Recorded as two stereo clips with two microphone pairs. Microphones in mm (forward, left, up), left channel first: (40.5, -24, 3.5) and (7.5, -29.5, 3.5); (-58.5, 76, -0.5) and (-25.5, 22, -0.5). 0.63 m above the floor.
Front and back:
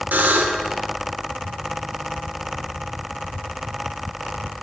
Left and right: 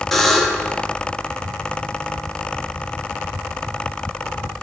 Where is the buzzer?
160° right, 0.7 m.